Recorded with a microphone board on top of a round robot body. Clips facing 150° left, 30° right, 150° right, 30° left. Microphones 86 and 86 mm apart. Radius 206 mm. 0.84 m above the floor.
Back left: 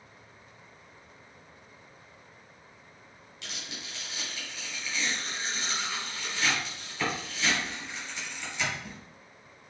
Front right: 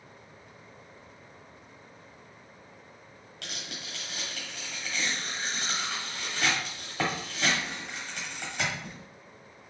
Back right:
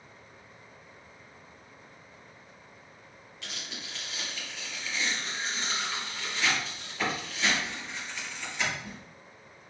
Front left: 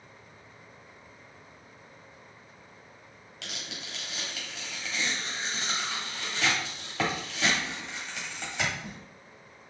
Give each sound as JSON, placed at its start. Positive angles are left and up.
{"t": 3.4, "sound": "tearing paper", "azimuth_deg": 10, "distance_m": 1.1}